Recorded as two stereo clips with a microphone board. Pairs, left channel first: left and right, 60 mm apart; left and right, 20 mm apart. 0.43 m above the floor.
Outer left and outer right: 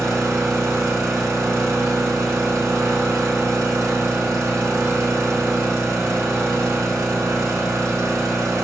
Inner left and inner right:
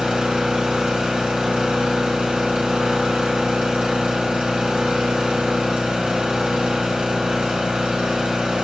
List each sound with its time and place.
0.0 s an engine running: 70° right (ahead or behind), 1.0 m